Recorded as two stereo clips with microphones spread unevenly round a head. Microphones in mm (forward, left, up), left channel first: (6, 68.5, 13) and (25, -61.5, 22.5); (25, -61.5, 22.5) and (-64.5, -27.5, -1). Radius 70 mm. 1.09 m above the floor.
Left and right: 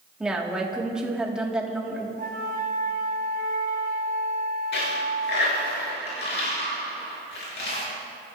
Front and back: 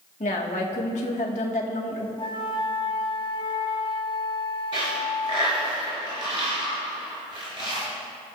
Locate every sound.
0.2 s a woman speaking: straight ahead, 2 m
2.2 s a flute: 55° right, 1.1 m
4.7 s a dropped coin: 95° left, 5.5 m